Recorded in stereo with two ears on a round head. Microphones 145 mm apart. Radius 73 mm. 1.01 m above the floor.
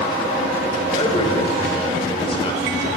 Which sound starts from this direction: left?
A man speaking, at 0.9 s.